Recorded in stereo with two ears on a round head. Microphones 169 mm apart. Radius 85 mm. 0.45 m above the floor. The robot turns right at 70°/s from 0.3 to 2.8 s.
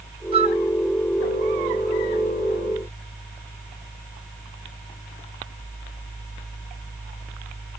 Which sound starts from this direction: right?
A flute, at 0.3 s.